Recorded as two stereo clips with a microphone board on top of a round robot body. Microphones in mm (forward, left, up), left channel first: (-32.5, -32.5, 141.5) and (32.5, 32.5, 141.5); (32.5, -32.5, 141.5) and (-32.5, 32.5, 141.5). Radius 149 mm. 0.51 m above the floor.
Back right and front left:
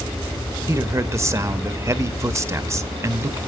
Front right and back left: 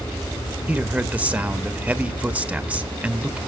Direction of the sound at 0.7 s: 70° left.